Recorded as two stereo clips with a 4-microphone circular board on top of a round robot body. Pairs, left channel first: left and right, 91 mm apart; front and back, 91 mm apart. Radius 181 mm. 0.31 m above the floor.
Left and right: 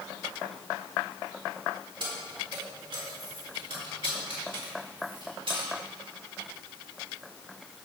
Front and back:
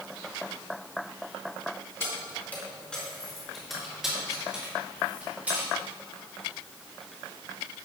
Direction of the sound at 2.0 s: 65° right.